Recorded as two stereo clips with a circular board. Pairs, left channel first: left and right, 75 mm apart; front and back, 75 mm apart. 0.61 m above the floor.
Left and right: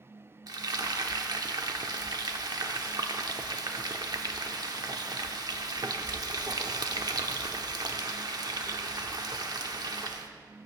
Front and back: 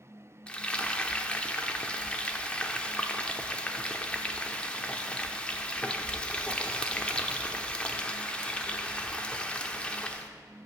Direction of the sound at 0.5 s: 75° right.